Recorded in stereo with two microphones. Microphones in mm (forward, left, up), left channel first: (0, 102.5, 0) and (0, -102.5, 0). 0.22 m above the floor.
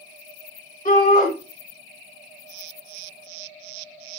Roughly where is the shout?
Left.